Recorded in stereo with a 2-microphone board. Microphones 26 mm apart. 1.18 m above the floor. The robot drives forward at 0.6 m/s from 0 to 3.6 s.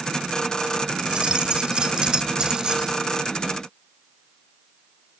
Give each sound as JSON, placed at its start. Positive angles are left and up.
{"t": 1.0, "sound": "keys jangling", "side_deg": -40}